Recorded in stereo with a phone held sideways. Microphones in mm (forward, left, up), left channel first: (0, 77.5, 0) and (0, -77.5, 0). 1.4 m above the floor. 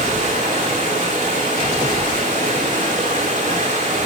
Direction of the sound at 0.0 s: 50° right (ahead or behind).